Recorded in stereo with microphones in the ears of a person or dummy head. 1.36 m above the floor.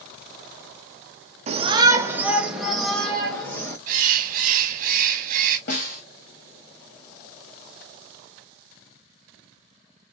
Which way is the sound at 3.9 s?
50° right (ahead or behind).